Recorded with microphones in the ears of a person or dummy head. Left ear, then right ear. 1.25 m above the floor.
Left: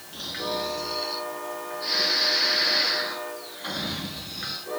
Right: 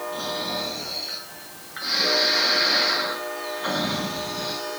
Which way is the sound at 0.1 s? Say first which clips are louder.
Left 1 dB; 45° right (ahead or behind).